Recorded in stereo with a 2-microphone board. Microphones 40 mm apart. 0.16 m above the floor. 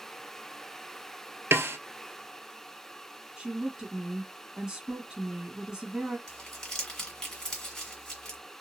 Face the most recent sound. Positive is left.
turn(degrees=15)  # may be behind; listen again after turning